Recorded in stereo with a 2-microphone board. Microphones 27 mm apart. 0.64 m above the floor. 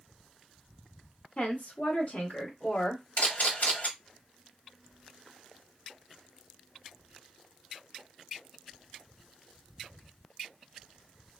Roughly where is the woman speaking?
Left.